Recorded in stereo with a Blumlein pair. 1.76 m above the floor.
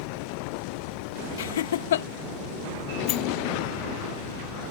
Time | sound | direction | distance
1.4 | laughter | 60° left | ?
3.1 | a sliding door | 30° left | ?